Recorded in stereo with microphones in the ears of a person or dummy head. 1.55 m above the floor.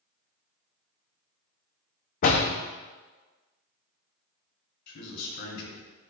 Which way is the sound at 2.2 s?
40° left (ahead or behind).